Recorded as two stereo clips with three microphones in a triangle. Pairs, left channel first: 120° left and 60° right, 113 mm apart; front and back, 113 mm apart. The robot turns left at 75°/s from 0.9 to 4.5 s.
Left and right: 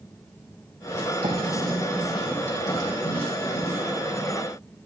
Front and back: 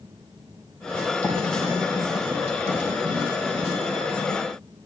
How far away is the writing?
About 5 m.